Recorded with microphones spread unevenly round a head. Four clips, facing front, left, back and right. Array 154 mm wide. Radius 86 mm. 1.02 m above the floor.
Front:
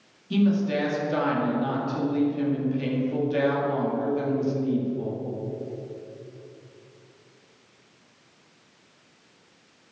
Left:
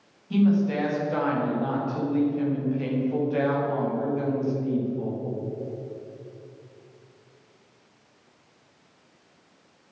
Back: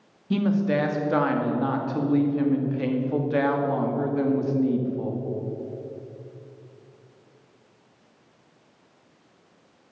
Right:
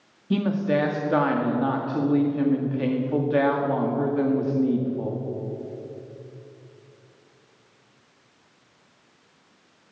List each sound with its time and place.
0.3 s a woman speaking: 100° right, 2.5 m